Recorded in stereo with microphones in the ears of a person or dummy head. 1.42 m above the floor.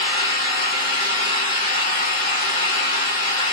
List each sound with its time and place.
0.0 s an engine running: 45° left (ahead or behind), 2.5 m